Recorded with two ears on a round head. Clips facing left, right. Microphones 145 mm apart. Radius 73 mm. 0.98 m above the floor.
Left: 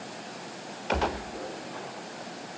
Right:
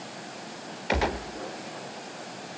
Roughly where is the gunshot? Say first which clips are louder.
Right 1 dB; centre.